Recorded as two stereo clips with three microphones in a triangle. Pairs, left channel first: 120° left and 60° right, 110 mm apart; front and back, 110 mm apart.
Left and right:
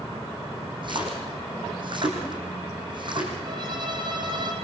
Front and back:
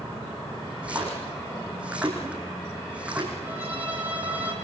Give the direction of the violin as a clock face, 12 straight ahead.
3 o'clock.